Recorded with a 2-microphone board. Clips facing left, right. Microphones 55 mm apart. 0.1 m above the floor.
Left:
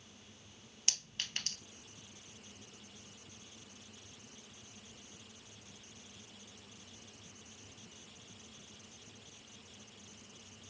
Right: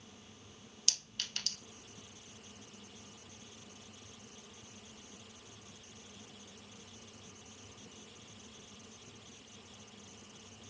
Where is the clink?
35° left (ahead or behind), 1.6 m.